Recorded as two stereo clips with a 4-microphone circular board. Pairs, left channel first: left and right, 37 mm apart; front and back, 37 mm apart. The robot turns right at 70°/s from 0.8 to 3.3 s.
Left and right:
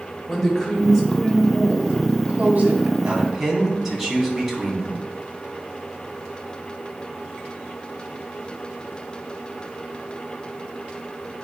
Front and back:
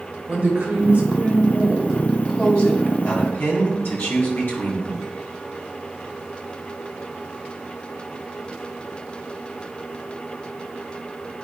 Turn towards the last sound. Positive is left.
turn(degrees=-5)